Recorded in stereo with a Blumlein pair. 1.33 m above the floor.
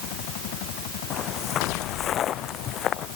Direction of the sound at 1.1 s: 30° left.